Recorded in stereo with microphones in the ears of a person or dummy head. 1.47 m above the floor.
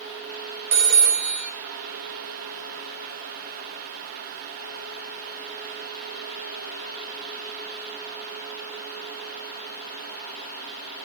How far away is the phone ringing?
About 1.3 m.